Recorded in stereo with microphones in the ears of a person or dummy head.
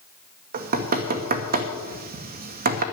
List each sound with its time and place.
0.5 s knocking: 55° right (ahead or behind), 1.2 m